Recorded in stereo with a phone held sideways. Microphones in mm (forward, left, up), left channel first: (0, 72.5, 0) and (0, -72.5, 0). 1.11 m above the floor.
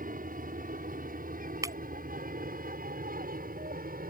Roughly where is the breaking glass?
Right.